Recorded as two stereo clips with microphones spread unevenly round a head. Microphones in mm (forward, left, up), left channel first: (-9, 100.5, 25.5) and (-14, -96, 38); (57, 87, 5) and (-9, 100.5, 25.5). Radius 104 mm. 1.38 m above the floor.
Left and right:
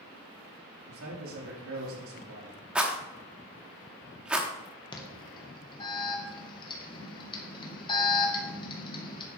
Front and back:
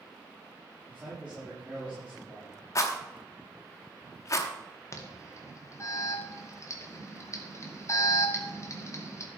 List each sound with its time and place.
0.9 s a man speaking: 105° right, 3 m
2.8 s a rattle: 20° right, 0.9 m
4.9 s an alarm: 25° left, 1.9 m